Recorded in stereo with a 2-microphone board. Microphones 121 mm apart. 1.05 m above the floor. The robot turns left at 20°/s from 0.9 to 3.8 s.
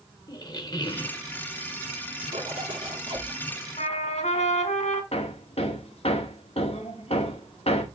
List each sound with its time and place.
0.3 s a squeak: 35° left (ahead or behind), 1.0 m; by 1.2 s 30° left (ahead or behind), 1.0 m
2.3 s a zipper: 65° right (ahead or behind), 3 m; by 3.3 s 45° right (ahead or behind), 3 m
3.8 s a trumpet: 80° left, 2.5 m
5.1 s hammering: 60° left (ahead or behind), 2.0 m